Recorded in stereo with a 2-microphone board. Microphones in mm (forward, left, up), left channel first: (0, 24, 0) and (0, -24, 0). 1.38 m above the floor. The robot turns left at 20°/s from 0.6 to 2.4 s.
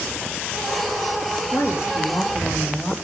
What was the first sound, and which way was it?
A woman speaking, 80° left.